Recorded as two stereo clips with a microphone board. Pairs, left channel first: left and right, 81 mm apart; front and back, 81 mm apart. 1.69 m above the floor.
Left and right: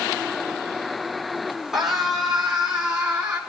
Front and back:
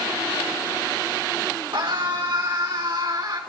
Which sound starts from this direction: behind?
A scream, at 1.7 s.